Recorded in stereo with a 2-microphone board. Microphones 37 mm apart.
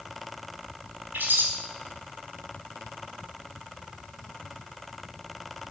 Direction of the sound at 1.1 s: 65° right (ahead or behind).